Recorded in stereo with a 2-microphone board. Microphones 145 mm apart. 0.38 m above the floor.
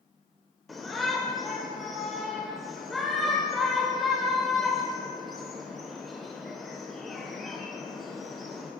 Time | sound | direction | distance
0.7 | a shout | centre (ahead or behind) | 0.9 m